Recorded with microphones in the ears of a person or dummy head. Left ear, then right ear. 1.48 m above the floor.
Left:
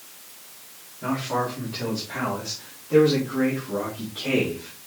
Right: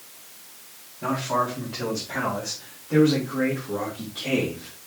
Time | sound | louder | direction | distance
1.0 | a man speaking | right 2 dB | 35° right (ahead or behind) | 4 m